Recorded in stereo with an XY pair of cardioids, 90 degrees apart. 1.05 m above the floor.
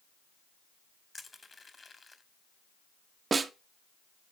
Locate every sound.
1.1 s crushing: 30° left, 2 m
3.3 s a snare drum: 40° right, 1.1 m